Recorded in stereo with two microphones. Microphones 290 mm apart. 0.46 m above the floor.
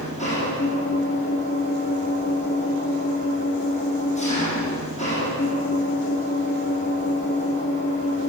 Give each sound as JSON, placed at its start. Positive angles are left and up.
{"t": 0.0, "sound": "an engine running", "side_deg": 25, "distance_m": 9.0}